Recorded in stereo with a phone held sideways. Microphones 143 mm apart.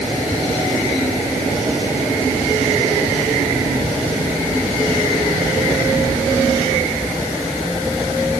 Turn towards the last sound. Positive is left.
No sound to turn to.